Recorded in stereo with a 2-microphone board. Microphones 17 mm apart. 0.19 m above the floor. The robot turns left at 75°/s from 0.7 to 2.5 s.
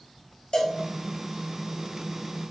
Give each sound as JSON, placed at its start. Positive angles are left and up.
{"t": 0.5, "sound": "a cowbell", "side_deg": 60, "distance_m": 1.2}